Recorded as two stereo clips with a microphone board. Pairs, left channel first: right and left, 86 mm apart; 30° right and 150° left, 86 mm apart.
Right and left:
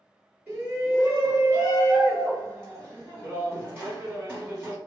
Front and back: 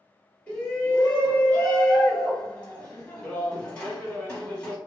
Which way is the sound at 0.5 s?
35° left.